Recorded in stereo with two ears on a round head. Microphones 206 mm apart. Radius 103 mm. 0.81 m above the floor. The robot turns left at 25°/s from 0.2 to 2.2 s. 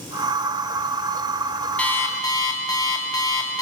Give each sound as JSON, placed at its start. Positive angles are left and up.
{"t": 1.8, "sound": "an alarm clock", "side_deg": 5, "distance_m": 0.9}